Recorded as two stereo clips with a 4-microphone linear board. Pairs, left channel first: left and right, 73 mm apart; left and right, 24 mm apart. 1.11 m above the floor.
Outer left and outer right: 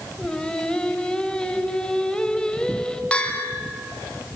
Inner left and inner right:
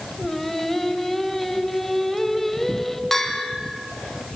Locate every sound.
0.2 s singing: 10° left (ahead or behind), 1.5 m
3.1 s a bell: 15° left (ahead or behind), 3 m